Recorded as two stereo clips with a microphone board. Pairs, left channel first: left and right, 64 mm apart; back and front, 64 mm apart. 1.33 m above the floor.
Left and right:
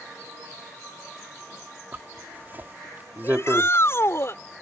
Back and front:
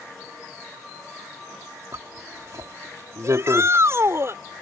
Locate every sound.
1.9 s a zipper: 35° right
3.2 s a shout: 45° left